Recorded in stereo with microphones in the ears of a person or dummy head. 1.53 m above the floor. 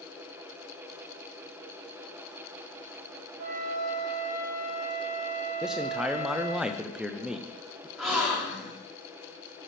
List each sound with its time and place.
3.4 s a flute: 55° right (ahead or behind), 3 m
5.6 s a man speaking: centre (ahead or behind), 0.6 m
8.0 s a gasp: centre (ahead or behind), 2.5 m